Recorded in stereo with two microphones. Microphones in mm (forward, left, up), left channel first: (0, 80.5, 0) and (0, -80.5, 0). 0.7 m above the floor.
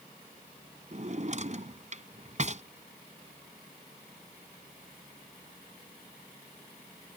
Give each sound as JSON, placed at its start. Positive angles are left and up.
{"t": 0.9, "sound": "a drawer", "side_deg": -50}